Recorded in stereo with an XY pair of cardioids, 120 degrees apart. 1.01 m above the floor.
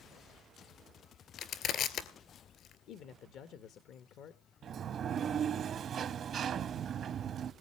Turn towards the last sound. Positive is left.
turn(degrees=-50)